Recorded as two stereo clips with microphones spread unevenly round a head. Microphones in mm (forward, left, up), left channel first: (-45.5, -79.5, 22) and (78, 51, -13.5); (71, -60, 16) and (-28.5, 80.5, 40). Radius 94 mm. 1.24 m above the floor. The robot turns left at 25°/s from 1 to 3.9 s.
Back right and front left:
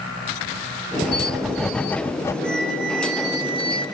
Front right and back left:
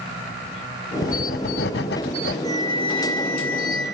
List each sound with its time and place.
1.0 s writing: 45° right, 0.5 m; by 2.3 s 75° right, 0.5 m
2.4 s a flute: 165° right, 5 m; by 3.9 s 160° left, 5 m